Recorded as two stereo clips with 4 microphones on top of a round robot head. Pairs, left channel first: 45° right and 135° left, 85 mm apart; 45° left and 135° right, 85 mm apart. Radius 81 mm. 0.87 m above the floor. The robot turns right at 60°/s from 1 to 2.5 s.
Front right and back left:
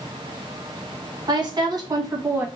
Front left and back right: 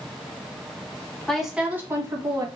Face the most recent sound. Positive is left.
turn(degrees=-160)